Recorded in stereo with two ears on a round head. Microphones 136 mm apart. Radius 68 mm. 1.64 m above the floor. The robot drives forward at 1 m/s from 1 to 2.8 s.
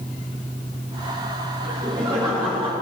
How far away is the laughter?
About 4.5 m.